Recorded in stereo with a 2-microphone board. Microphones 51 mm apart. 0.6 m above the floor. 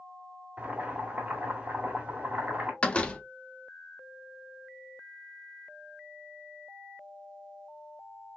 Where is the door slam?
25° left (ahead or behind), 0.7 m.